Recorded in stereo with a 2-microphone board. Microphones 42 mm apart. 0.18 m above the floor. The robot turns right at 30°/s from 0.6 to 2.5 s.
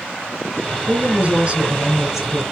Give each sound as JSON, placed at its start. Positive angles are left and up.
{"t": 0.9, "sound": "a woman speaking", "azimuth_deg": -55, "distance_m": 3.0}